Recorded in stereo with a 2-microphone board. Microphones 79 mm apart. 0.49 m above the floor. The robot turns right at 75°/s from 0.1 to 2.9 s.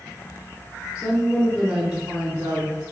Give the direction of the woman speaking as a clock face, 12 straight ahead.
8 o'clock.